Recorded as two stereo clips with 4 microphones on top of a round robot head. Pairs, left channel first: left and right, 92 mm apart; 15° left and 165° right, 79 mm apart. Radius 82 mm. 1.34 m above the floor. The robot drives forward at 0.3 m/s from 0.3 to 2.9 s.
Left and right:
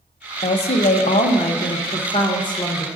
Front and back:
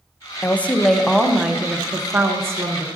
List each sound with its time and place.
0.4 s a woman speaking: 80° left, 0.6 m; by 2.9 s 140° left, 0.8 m